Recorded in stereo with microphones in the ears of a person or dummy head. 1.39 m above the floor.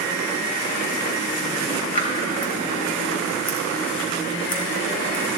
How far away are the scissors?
About 3 m.